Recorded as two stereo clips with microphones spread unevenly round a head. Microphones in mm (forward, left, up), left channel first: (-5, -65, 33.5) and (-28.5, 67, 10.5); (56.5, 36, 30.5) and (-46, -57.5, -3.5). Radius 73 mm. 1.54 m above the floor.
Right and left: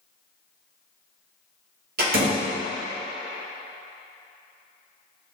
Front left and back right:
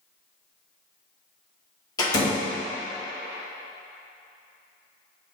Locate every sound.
2.0 s a door slam: 105° left, 2.5 m